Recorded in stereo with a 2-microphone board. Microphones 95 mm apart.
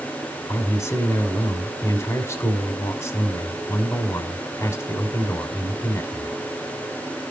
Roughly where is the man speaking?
Left.